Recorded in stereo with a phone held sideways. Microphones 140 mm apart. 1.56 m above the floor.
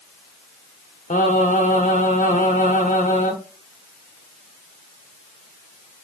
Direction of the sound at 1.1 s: 70° left (ahead or behind).